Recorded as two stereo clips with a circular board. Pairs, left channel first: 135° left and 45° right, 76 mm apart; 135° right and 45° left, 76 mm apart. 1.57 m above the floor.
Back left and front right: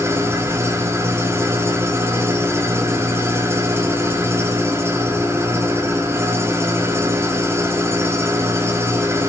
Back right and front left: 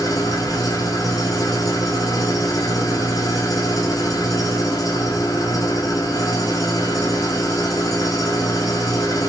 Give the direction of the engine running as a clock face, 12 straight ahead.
3 o'clock.